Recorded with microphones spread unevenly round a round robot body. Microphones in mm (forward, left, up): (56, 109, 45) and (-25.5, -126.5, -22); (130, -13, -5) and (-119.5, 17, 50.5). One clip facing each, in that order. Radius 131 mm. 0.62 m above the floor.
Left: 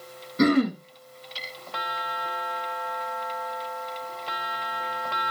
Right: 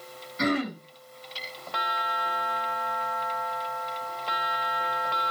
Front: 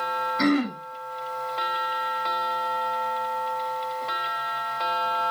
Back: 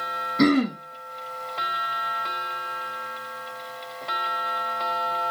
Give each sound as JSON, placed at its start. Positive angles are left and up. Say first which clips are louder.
{"t": 0.4, "sound": "throat clearing", "louder": "left 7 dB, back 3 dB", "azimuth_deg": 120, "distance_m": 1.4}